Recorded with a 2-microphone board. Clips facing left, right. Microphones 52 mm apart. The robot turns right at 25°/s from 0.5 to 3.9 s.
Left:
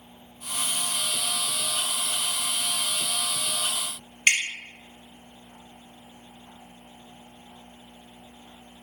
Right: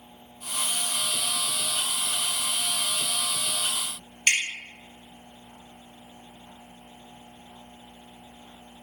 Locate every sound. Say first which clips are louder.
4.3 s dripping: left 2 dB; 35° left (ahead or behind), 1.2 m